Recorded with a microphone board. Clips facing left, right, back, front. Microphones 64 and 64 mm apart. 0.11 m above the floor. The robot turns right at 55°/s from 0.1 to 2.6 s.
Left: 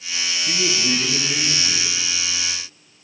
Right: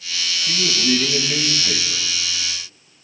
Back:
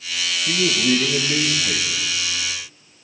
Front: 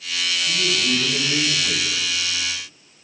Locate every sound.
0.5 s a man speaking: 160° left, 2.5 m; by 2.0 s 110° right, 2.5 m